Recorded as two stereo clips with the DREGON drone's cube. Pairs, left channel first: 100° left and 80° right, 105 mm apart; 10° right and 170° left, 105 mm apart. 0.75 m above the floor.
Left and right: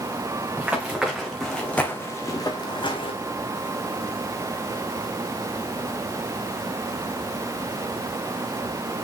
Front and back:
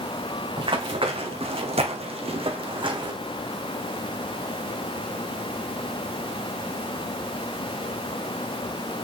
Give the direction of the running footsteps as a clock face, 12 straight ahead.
5 o'clock.